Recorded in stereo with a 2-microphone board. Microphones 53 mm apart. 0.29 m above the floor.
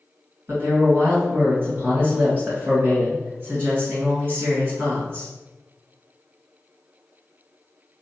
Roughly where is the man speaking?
Right.